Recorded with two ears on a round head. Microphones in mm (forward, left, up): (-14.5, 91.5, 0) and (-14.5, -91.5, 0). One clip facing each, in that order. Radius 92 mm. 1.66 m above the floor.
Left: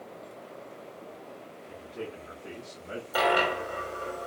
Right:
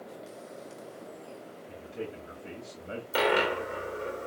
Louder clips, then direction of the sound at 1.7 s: Even; 25° right (ahead or behind).